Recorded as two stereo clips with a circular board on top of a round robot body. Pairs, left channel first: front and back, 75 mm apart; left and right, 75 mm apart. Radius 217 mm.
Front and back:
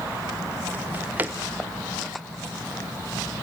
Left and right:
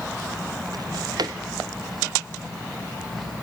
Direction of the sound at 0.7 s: 115° right.